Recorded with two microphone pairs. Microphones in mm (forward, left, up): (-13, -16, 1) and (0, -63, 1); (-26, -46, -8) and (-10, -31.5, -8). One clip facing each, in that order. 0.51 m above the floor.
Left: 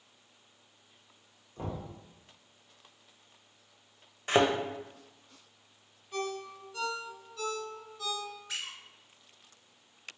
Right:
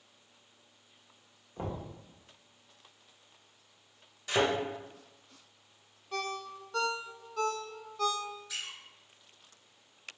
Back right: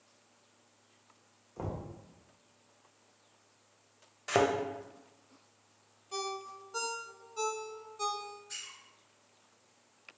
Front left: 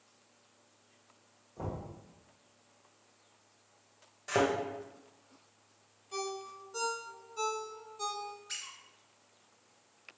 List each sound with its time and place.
1.6 s knocking: 135° right, 1.1 m
4.3 s a thud: 160° left, 0.6 m
6.1 s a ringtone: 75° right, 0.5 m
8.5 s a squeak: 75° left, 0.8 m